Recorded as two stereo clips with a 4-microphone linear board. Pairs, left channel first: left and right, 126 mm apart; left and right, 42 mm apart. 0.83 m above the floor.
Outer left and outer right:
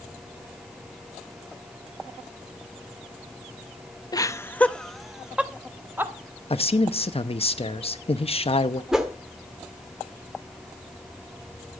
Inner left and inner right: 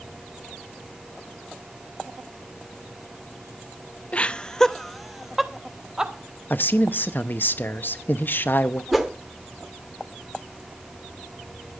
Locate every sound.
4.1 s laughter: 30° left (ahead or behind), 0.7 m; by 6.1 s 20° right (ahead or behind), 1.4 m
6.5 s a man speaking: 50° left (ahead or behind), 0.8 m
8.9 s a whoosh: 5° right (ahead or behind), 1.4 m